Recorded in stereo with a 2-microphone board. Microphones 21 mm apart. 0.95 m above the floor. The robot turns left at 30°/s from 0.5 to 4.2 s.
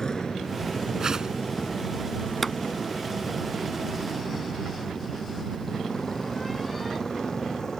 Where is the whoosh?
35° right (ahead or behind); by 1.4 s 45° right (ahead or behind).